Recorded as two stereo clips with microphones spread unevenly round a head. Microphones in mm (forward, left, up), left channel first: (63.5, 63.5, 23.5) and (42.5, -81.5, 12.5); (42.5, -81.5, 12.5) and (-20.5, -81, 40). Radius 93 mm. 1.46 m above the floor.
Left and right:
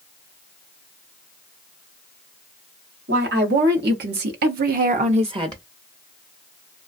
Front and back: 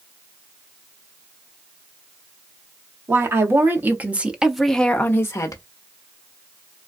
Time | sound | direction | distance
3.1 | a woman speaking | 130° right | 1.1 m